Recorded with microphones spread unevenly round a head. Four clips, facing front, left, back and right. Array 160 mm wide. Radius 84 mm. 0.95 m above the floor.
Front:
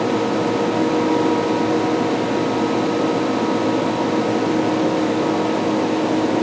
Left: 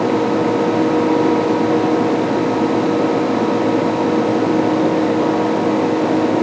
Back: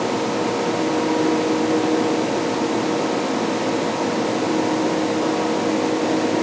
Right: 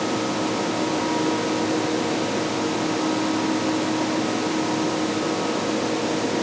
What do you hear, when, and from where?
Only background noise.